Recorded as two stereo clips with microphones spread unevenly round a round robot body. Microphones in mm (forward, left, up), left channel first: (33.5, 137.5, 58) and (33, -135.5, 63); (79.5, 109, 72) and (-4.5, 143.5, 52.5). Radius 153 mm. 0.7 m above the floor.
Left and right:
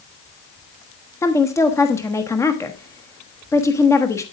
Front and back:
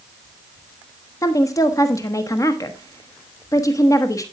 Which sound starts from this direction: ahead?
A woman speaking, at 1.2 s.